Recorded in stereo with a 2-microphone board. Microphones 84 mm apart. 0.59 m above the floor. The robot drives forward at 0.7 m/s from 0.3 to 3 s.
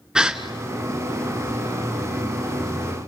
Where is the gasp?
5° right (ahead or behind), 1.5 m.